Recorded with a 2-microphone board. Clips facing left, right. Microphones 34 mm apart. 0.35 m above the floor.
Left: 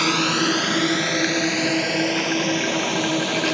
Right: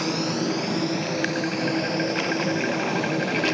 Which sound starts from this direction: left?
A drone, at 0.0 s.